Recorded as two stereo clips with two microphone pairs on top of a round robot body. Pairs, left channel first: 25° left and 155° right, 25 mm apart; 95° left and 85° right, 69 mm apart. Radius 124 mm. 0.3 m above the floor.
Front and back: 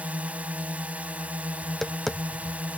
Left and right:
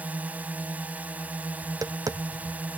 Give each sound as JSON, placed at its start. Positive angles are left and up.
{"t": 0.0, "sound": "a drone", "azimuth_deg": -150}
{"t": 1.6, "sound": "tapping", "azimuth_deg": -60}